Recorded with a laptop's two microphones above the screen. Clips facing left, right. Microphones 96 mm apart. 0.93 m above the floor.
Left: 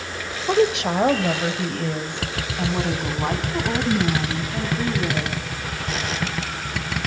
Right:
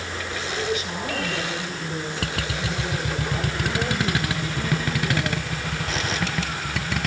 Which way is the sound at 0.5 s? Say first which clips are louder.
Left 10 dB; 80° left.